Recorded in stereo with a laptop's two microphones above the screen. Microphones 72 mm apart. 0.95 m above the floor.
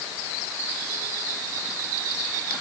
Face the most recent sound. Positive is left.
No sound to turn to.